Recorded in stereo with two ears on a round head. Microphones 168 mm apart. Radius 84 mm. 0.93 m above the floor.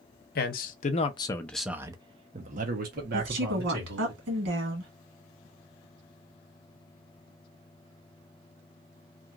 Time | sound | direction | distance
0.3 | a man speaking | 55° left (ahead or behind) | 0.8 m
3.1 | a woman speaking | 65° right (ahead or behind) | 1.3 m